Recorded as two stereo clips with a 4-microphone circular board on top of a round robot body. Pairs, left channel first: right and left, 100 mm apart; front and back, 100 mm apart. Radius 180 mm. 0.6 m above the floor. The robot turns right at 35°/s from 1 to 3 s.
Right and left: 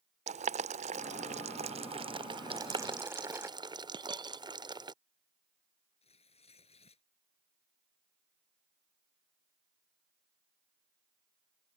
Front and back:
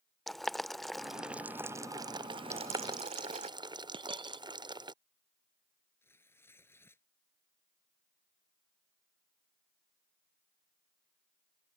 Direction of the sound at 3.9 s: 140° left.